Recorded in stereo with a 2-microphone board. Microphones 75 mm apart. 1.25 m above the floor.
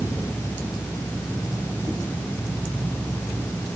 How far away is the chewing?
I don't hear chewing.